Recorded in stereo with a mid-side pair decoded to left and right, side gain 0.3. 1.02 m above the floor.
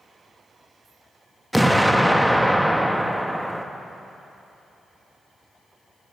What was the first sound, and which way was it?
An explosion, 5° right.